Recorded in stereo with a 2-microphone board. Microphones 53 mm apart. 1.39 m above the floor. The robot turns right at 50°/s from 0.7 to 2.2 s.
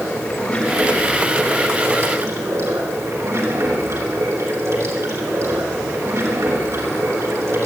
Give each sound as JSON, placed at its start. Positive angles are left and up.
{"t": 0.0, "sound": "running water", "azimuth_deg": 165, "distance_m": 6.0}